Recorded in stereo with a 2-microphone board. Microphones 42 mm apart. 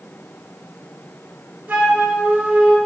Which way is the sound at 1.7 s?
45° right (ahead or behind).